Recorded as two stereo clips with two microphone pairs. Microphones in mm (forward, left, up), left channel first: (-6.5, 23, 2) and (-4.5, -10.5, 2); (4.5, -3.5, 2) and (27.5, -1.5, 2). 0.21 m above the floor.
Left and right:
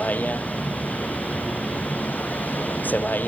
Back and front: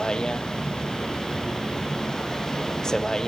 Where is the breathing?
I don't hear breathing.